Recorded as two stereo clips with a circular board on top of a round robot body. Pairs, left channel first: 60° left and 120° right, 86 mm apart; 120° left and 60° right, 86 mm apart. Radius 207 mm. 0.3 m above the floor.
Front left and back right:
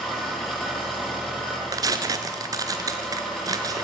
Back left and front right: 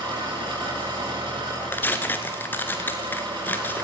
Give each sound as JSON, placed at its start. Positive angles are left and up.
{"t": 0.0, "sound": "an engine running", "azimuth_deg": -25, "distance_m": 9.0}
{"t": 1.7, "sound": "tearing paper", "azimuth_deg": -170, "distance_m": 1.2}